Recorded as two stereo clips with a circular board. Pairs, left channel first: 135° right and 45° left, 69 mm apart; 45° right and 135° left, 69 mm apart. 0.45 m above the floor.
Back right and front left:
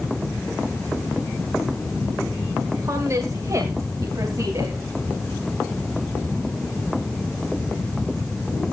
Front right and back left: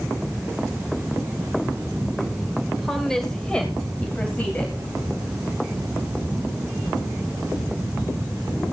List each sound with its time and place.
2.7 s a woman speaking: 45° left, 1.5 m; by 4.8 s 20° left, 2.5 m